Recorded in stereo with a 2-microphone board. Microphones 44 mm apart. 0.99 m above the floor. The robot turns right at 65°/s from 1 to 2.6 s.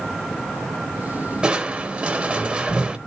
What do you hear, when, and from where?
1.4 s crushing: 20° right (ahead or behind), 0.8 m; by 3.0 s 25° right (ahead or behind), 0.8 m